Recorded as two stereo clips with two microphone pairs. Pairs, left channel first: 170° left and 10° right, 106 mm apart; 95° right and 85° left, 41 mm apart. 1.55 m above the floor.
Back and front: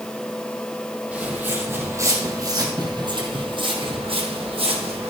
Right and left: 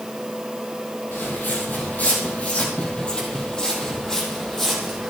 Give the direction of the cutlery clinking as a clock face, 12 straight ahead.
No cutlery clinking in this recording.